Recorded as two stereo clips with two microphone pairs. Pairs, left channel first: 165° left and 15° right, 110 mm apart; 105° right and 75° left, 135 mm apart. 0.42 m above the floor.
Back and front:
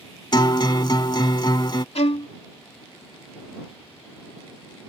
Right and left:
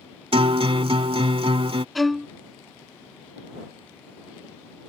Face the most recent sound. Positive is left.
turn(degrees=165)